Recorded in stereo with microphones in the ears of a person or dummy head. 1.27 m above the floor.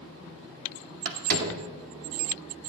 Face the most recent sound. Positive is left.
turn(degrees=-50)  # may be behind; listen again after turning